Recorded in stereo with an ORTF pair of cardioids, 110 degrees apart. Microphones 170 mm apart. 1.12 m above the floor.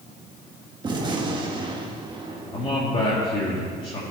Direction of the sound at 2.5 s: 30° left.